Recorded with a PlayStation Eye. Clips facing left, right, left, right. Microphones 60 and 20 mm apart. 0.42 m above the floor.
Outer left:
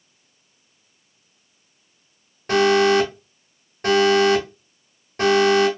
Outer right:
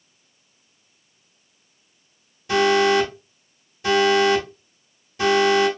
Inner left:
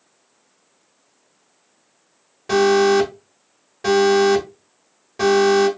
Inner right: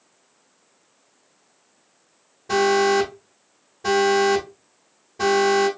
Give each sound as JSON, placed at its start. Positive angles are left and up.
{"t": 2.5, "sound": "an alarm", "side_deg": 55, "distance_m": 1.5}